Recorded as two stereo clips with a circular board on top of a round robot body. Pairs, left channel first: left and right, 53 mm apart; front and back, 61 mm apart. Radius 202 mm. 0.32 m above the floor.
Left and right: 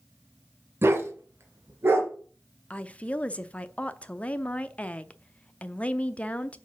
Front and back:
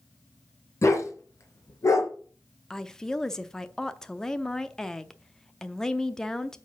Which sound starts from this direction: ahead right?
A dog barking, at 0.8 s.